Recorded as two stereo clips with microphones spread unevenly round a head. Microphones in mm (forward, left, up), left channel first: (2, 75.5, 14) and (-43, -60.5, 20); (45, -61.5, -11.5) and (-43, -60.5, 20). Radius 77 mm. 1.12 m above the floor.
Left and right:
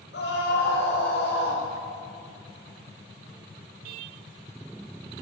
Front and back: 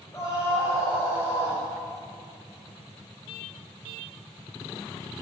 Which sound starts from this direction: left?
A scream, at 0.1 s.